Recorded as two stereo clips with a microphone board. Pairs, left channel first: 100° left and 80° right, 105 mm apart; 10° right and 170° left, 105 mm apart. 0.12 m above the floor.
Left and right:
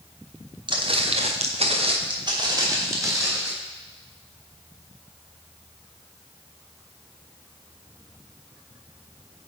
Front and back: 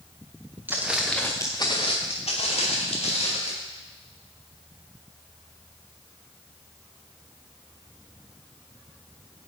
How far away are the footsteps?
About 1.4 m.